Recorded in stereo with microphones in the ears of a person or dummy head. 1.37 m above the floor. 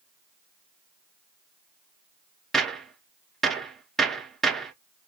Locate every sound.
2.5 s a gunshot: centre (ahead or behind), 0.7 m